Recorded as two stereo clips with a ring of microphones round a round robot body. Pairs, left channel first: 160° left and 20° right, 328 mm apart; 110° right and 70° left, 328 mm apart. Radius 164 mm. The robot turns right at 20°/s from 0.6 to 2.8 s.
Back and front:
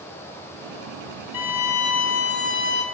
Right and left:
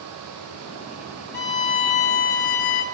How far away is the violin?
About 0.7 m.